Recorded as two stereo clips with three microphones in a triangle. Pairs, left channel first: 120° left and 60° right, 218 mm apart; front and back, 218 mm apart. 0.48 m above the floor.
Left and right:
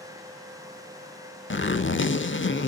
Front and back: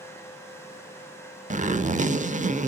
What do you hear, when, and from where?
1.5 s a zipper: 130° left, 1.0 m